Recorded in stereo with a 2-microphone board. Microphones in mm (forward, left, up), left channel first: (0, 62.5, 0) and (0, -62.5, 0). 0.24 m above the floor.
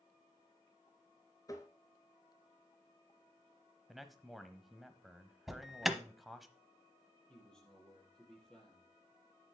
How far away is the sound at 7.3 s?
About 5 m.